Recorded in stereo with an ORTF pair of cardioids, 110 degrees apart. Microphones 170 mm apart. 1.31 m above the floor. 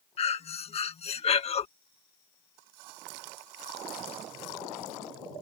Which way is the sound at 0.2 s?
35° left.